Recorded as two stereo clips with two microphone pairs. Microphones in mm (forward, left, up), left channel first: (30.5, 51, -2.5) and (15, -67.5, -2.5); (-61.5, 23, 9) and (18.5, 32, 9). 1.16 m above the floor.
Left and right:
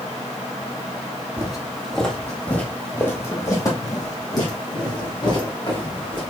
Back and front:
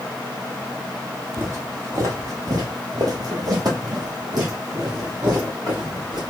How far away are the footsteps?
About 1.4 m.